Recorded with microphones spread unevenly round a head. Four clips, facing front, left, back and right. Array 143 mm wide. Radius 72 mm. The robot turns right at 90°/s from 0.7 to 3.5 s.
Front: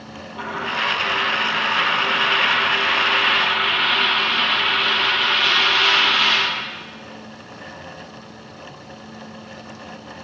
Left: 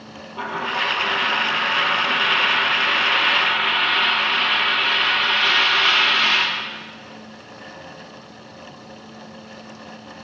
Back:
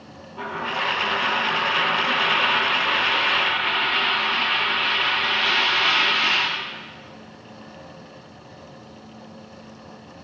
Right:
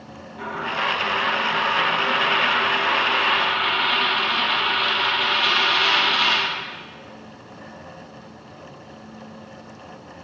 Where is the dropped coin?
80° left, 3 m; by 6.5 s 25° right, 3 m.